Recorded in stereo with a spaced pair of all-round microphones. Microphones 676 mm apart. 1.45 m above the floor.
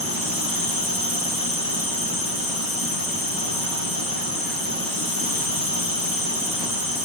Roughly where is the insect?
Left.